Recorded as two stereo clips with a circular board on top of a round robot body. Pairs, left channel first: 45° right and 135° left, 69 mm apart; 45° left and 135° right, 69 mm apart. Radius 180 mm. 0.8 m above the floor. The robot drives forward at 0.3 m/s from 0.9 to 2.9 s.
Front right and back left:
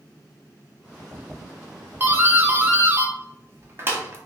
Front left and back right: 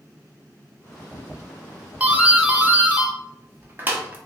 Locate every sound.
2.0 s a doorbell: 170° left, 1.1 m; by 4.2 s 175° left, 1.2 m